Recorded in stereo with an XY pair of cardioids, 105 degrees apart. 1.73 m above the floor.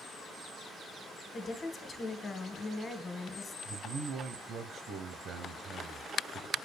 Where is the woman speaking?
35° left, 1.9 m.